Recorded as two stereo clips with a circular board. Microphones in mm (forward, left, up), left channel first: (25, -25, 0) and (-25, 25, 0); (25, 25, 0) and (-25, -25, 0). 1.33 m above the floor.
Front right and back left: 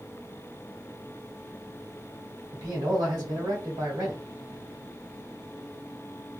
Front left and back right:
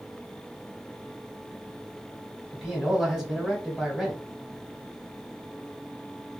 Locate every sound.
2.5 s a man speaking: 140° left, 1.6 m